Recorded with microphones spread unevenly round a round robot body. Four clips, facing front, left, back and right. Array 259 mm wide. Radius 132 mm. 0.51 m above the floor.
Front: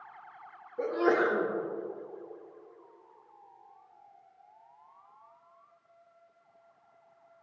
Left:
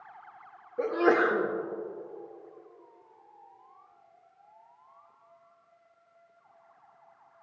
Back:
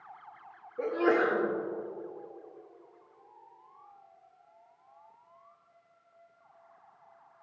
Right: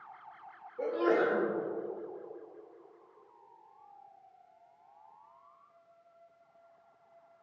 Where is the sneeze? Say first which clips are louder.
Left 4 dB, even; 80° left, 1.2 m.